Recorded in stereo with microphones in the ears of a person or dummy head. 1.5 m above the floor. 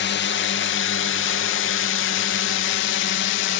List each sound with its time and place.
0.0 s a drone: 55° left (ahead or behind); by 3.6 s 65° left (ahead or behind)